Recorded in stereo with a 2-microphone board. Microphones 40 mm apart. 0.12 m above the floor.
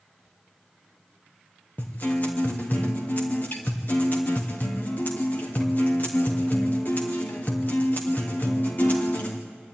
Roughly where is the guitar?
Left.